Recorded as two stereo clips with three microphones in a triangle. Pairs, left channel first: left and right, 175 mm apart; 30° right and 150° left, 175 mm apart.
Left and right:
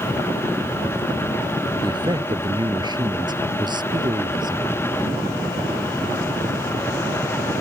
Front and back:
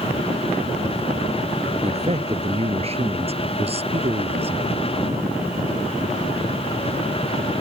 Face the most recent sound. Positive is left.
turn(degrees=-155)